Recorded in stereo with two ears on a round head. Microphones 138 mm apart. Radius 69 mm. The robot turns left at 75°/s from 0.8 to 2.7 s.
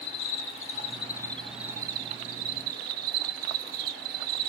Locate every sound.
0.0 s an insect: 50° left, 1.8 m; by 4.5 s 90° right, 1.8 m